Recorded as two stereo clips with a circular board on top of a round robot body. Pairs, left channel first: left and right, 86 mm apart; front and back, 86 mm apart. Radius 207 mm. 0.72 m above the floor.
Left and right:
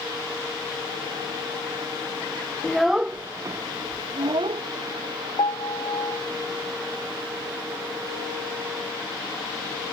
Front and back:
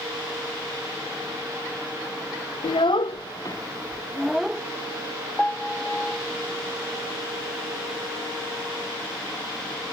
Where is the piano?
80° left.